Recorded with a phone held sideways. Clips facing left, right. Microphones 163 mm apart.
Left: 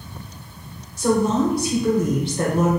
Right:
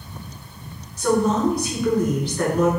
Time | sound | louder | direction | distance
1.0 | a woman speaking | even | 25° left (ahead or behind) | 1.4 m